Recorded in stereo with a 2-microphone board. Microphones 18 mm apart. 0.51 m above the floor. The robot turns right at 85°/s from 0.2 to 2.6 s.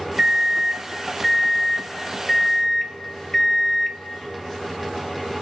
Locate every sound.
0.2 s a microwave: 25° right (ahead or behind), 0.5 m; by 4.0 s 20° left (ahead or behind), 0.5 m